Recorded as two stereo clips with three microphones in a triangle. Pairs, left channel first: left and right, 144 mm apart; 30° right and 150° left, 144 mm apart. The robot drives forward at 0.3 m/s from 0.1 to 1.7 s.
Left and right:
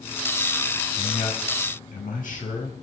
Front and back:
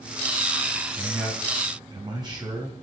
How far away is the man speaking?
About 3 m.